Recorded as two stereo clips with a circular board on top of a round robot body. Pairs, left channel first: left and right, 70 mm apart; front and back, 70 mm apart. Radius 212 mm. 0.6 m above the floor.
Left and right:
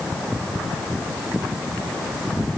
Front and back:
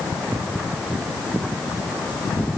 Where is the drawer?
I don't hear a drawer.